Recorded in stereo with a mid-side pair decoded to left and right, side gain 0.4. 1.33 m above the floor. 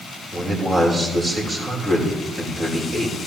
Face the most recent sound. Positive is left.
turn(degrees=-25)